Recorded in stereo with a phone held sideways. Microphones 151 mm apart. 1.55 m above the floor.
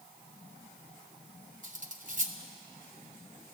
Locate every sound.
1.6 s cutlery clinking: 55° right (ahead or behind), 1.0 m